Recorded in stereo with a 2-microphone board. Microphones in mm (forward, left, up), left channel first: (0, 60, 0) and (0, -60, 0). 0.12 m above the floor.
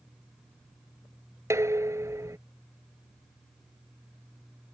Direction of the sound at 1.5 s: 25° right (ahead or behind).